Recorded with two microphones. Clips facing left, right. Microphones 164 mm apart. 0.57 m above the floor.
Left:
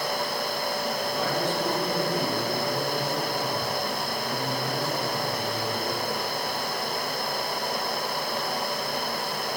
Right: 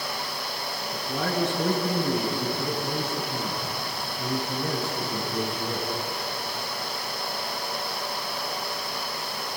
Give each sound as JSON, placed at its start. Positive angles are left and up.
{"t": 0.9, "sound": "a man speaking", "side_deg": -70, "distance_m": 7.5}